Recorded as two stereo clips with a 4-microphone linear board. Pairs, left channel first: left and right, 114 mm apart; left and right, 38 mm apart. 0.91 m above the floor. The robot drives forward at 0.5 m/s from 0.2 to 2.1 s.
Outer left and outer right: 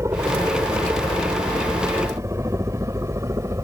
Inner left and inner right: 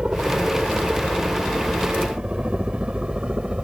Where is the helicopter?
25° right (ahead or behind).